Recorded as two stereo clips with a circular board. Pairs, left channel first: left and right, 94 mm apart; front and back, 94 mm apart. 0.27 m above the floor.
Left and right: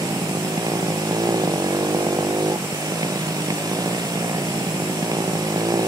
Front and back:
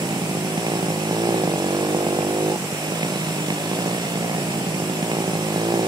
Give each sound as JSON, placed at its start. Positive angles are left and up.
{"t": 0.0, "sound": "a motorcycle", "azimuth_deg": -135}